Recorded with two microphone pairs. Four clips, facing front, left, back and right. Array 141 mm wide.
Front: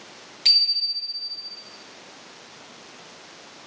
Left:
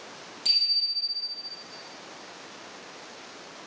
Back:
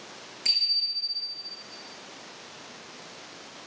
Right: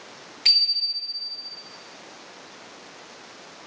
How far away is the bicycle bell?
About 7 m.